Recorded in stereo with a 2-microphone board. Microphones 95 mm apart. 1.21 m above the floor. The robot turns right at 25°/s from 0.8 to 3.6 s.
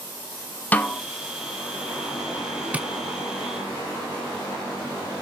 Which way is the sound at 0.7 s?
15° left (ahead or behind).